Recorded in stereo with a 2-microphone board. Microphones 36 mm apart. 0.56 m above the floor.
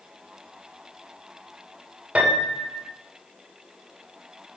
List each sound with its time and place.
2.1 s a piano: 35° right (ahead or behind), 2 m